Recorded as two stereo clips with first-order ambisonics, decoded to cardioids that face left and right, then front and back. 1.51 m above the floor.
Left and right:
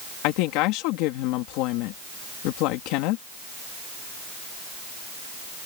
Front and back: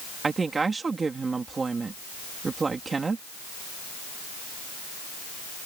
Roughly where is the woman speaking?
Left.